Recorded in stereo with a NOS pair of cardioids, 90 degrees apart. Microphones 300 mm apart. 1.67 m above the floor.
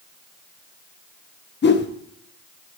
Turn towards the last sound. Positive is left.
turn(degrees=35)